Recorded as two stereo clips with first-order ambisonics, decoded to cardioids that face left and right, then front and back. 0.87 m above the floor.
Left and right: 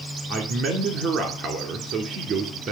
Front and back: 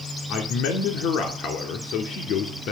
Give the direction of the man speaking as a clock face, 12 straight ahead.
1 o'clock.